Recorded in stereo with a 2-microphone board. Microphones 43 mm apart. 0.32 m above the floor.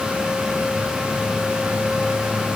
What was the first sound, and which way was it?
Only background noise.